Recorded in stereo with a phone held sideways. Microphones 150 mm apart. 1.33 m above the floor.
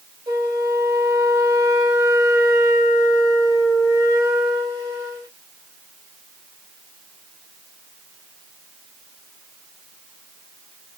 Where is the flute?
20° right (ahead or behind), 2.5 m.